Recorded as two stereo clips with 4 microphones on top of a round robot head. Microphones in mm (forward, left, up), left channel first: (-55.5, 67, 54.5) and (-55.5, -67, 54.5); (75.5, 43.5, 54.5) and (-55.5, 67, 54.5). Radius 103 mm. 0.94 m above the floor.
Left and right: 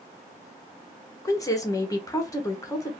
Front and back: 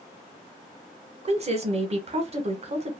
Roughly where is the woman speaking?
Behind left.